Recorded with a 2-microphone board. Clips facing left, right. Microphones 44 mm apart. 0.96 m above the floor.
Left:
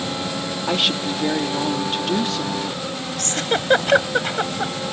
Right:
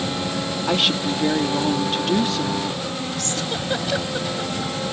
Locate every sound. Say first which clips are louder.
0.7 s a woman speaking: even; centre (ahead or behind)
3.2 s a giggle: left 3 dB; 50° left (ahead or behind)